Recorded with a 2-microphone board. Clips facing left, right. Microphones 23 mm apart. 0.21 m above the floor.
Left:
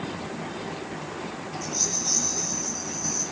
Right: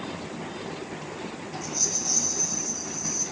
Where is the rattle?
45° left (ahead or behind), 8 m.